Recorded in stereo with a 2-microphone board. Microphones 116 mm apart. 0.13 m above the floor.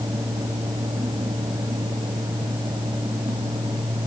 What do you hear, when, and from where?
Only background noise.